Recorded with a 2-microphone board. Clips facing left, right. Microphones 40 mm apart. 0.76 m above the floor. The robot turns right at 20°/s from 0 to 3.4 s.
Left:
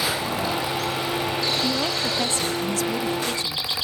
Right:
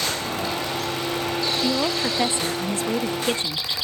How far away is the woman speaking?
About 0.8 m.